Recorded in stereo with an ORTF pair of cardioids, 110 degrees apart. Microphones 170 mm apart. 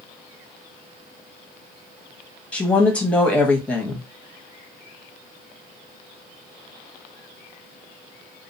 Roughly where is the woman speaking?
Ahead.